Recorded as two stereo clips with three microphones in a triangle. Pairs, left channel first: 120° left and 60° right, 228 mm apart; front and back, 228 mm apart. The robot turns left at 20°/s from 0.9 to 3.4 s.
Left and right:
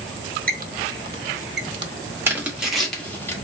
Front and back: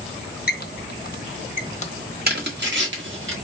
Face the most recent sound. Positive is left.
turn(degrees=-160)